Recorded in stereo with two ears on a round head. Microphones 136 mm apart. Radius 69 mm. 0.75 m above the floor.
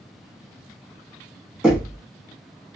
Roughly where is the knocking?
Centre.